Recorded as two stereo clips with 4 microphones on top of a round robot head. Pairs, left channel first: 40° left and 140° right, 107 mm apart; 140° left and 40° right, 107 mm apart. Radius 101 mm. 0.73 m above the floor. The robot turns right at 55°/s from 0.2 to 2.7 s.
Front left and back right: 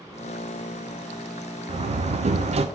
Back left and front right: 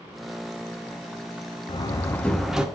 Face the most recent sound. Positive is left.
turn(degrees=-120)